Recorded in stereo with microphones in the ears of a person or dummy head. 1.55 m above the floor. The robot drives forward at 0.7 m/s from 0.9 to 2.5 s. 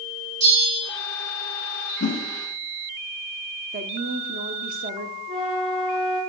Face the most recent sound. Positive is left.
turn(degrees=-40)  # may be behind; listen again after turning